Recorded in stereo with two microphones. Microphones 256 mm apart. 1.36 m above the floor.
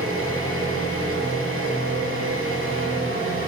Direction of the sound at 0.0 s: 55° right (ahead or behind).